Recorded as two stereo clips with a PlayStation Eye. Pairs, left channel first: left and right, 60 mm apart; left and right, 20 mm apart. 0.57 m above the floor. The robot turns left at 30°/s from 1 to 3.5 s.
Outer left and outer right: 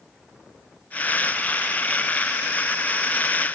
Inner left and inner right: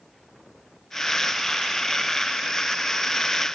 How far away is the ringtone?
No ringtone in this recording.